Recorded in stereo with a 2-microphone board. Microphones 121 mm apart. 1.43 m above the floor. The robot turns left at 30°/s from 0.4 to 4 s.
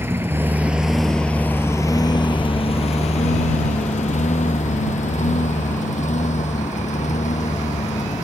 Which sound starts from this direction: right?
A lawn mower, at 0.0 s.